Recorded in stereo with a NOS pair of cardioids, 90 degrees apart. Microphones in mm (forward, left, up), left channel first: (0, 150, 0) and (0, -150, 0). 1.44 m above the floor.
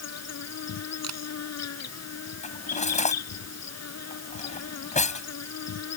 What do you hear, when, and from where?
0.0 s an insect: 55° left
1.0 s a camera shutter: 60° right
2.4 s cutlery clinking: 25° left